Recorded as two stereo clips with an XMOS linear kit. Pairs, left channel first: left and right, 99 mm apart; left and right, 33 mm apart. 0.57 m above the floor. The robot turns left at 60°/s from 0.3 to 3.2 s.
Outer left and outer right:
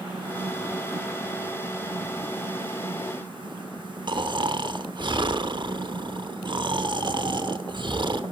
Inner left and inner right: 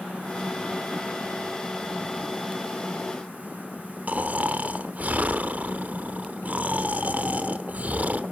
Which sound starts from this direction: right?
Snoring, at 4.1 s.